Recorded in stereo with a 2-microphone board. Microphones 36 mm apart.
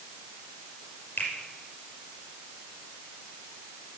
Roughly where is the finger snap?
Left.